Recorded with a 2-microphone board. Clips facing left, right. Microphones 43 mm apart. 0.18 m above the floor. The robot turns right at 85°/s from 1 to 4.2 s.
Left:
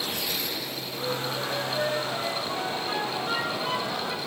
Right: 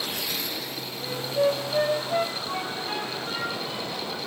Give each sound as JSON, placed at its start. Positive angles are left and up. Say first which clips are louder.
{"t": 1.0, "sound": "a flute", "louder": "right 6 dB", "side_deg": -5, "distance_m": 5.5}